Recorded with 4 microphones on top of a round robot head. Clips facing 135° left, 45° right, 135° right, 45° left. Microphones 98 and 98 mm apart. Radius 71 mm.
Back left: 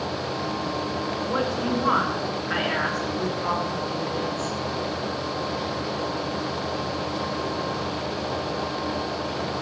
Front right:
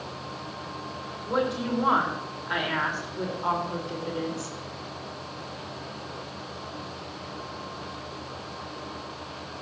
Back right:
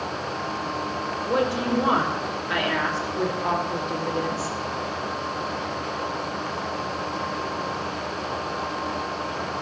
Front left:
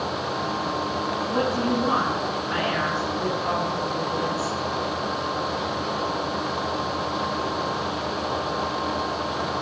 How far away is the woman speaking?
About 6.5 m.